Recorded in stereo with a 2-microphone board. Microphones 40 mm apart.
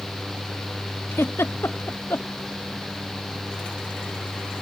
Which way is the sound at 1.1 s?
85° left.